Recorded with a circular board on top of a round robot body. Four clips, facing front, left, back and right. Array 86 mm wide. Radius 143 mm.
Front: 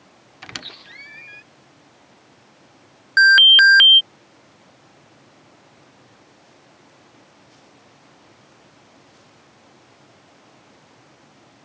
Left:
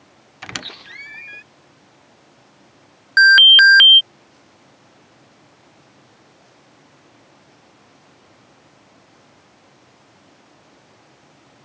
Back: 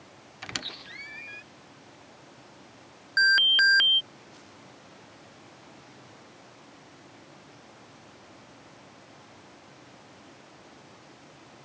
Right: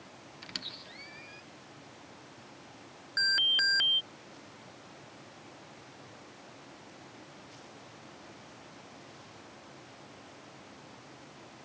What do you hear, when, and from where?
0.4 s a squeak: 85° left
3.2 s an alarm: 60° left